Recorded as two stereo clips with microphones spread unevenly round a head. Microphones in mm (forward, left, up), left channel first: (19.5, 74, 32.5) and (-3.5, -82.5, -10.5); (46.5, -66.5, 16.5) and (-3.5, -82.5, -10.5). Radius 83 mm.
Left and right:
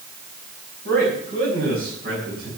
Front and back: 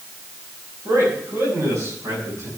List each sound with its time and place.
0.8 s a man speaking: 130° right, 5 m